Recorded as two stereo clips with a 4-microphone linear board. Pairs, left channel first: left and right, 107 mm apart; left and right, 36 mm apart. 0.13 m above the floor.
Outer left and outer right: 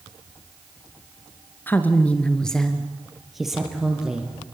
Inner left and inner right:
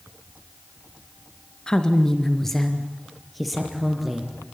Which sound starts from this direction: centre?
A woman speaking, at 1.7 s.